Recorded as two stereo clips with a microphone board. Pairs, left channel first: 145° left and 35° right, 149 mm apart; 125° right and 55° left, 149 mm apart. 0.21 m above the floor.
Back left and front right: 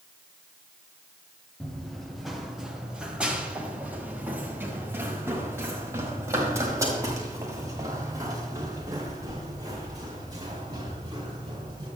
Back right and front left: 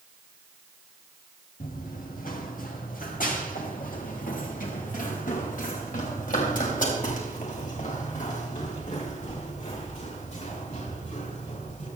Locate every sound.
1.6 s running footsteps: 130° right, 3.5 m; by 11.9 s 95° right, 10 m